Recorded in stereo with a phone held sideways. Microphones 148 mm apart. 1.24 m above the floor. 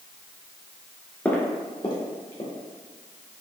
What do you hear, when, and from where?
1.2 s footsteps: 10° left (ahead or behind), 1.2 m; by 2.5 s 45° left (ahead or behind), 1.6 m